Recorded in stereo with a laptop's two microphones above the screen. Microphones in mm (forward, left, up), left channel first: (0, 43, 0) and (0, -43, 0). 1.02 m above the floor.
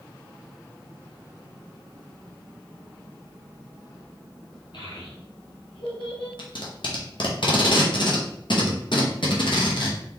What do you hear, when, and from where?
4.7 s a child speaking: 70° left (ahead or behind), 2.5 m; by 6.3 s 65° left (ahead or behind), 1.6 m
6.4 s tape being pulled: 70° left (ahead or behind), 0.9 m